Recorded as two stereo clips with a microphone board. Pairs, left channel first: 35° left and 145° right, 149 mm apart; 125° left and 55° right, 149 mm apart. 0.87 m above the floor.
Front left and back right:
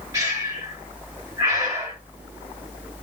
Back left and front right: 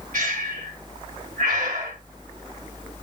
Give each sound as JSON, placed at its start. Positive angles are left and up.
{"t": 0.1, "sound": "breathing", "azimuth_deg": -80, "distance_m": 2.5}